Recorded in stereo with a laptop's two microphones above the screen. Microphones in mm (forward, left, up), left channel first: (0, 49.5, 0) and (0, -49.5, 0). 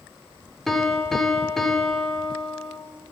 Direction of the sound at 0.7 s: Centre (ahead or behind).